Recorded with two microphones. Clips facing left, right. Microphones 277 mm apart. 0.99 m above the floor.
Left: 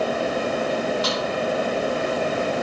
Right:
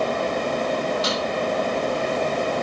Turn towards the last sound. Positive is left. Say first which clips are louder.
# even
turn(degrees=-25)  # may be behind; listen again after turning